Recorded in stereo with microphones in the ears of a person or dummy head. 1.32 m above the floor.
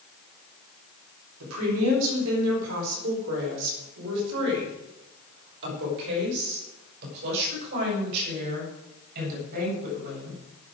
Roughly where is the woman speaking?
Right.